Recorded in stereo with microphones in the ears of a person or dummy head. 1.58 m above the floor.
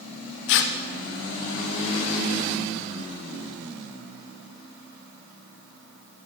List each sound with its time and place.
0.5 s tearing paper: 60° left (ahead or behind), 0.7 m